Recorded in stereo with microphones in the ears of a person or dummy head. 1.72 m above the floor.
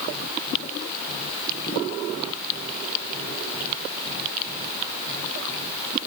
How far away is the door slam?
No door slam in this recording.